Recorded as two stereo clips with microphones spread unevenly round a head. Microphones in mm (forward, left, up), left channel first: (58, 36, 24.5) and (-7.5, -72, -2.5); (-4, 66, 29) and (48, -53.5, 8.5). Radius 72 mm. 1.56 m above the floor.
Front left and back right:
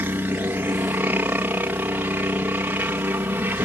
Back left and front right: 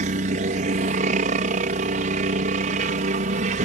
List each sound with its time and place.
0.0 s a helicopter: 50° right